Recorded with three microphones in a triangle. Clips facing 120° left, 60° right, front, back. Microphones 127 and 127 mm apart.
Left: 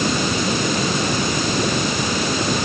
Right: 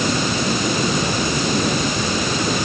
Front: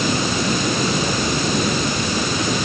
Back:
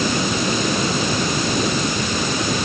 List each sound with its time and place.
Only background noise.